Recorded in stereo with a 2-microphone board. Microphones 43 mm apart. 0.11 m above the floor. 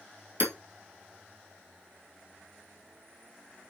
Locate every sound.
0.4 s hammering: 55° right (ahead or behind), 2.5 m